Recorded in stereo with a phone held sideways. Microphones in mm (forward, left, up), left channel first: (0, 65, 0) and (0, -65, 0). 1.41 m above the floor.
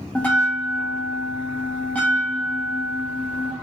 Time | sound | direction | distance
0.1 | a bell | 10° left (ahead or behind) | 0.8 m